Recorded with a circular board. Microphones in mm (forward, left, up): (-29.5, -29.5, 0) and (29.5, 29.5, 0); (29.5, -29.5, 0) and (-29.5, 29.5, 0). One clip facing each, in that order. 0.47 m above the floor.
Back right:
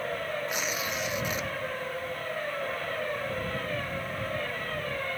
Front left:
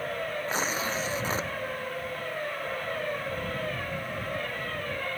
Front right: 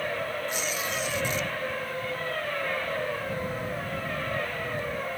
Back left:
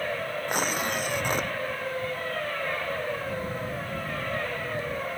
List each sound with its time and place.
0.5 s tearing paper: 100° left